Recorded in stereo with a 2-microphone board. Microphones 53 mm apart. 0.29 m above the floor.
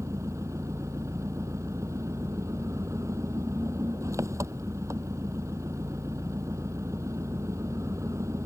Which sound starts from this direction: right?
An engine running, at 0.0 s.